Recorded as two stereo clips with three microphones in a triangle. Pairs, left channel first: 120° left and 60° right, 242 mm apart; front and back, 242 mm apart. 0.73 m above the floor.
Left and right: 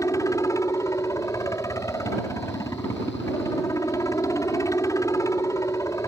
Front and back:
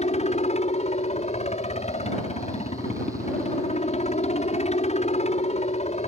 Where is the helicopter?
50° left.